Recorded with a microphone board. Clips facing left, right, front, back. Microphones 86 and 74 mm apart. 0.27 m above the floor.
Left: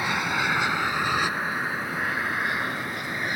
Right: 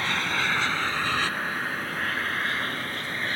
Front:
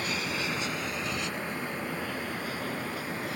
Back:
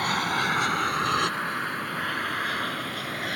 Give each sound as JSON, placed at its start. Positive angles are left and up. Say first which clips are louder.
{"t": 0.0, "sound": "an aircraft", "louder": "left 2 dB, back 7 dB", "azimuth_deg": 165}